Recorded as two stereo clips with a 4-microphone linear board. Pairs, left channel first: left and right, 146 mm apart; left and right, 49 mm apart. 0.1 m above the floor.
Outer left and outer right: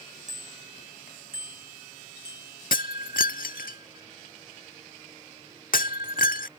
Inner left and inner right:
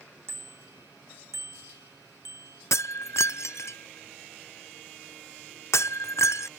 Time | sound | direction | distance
0.3 | a bicycle bell | 60° right (ahead or behind) | ?
2.7 | breaking glass | 80° left | ?